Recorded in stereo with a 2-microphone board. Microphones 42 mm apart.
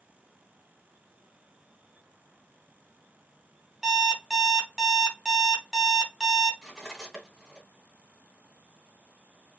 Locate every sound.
3.8 s an alarm clock: 5° right (ahead or behind), 1.9 m
6.6 s cutlery clinking: centre (ahead or behind), 2.5 m